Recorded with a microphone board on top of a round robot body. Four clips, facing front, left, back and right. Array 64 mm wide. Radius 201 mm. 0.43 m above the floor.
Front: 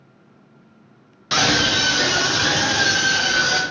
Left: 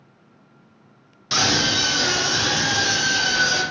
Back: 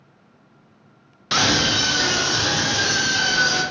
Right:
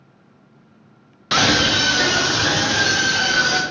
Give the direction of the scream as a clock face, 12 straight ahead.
3 o'clock.